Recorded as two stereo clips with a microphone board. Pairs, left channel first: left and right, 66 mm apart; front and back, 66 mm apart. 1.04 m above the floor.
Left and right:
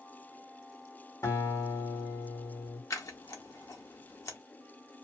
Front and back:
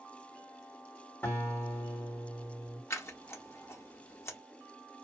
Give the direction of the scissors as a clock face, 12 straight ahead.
10 o'clock.